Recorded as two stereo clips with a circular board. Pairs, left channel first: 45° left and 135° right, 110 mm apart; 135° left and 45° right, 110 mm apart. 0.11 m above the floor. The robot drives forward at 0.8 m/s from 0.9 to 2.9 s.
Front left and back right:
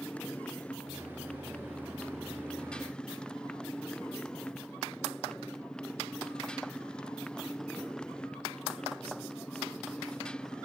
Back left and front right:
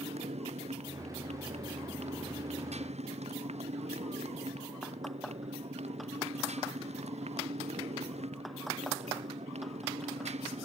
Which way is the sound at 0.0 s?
35° right.